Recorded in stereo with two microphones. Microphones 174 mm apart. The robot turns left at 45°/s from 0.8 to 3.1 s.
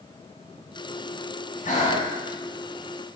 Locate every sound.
1.6 s breathing: 50° left (ahead or behind), 0.9 m; by 2.1 s 30° left (ahead or behind), 0.9 m